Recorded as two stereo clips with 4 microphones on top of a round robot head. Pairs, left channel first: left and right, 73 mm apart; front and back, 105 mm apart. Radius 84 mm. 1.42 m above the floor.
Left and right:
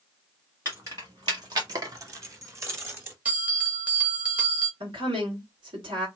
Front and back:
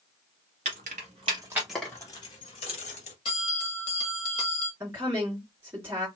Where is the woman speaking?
105° right, 2.0 m.